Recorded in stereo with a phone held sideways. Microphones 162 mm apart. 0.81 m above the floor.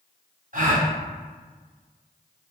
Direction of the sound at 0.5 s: 55° right (ahead or behind).